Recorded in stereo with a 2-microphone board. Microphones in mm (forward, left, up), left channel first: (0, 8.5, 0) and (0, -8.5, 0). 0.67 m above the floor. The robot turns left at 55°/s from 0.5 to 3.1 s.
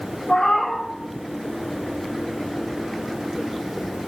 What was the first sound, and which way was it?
A cat meowing, 40° left (ahead or behind).